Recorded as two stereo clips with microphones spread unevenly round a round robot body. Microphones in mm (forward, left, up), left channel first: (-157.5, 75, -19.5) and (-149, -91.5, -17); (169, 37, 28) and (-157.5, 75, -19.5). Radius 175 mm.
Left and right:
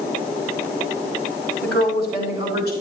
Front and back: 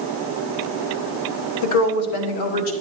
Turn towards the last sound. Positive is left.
turn(degrees=-10)